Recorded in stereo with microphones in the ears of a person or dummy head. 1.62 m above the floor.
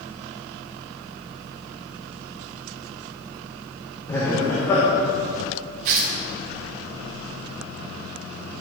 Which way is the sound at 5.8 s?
45° right (ahead or behind).